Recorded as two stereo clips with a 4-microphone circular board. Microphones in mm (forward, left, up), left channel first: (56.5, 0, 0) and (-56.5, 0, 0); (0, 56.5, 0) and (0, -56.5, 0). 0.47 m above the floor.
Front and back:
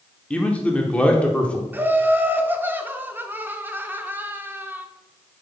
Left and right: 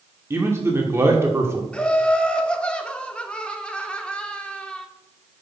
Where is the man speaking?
65° right, 1.1 m.